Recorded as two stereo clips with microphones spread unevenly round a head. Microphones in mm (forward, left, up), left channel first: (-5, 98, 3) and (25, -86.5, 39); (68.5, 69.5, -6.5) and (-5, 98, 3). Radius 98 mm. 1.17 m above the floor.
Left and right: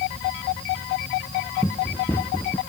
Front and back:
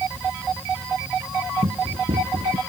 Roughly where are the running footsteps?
Behind.